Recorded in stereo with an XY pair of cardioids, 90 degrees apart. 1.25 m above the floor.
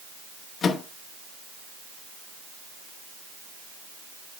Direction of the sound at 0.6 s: 65° left.